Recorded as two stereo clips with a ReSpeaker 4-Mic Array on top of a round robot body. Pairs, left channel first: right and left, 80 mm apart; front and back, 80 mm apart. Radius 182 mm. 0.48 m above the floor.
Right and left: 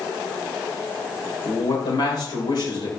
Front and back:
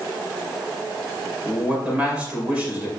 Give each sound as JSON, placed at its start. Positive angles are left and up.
{"t": 1.4, "sound": "a man speaking", "azimuth_deg": -105, "distance_m": 4.0}